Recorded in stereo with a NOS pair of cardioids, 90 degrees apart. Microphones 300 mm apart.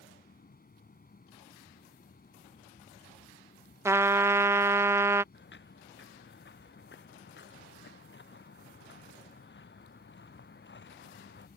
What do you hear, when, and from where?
0.0 s a fan: 30° left
3.9 s a trumpet: 10° right
5.3 s footsteps: 40° left